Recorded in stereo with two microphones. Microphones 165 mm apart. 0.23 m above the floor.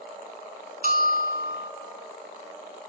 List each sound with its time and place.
0.8 s a bell: 60° right (ahead or behind), 0.9 m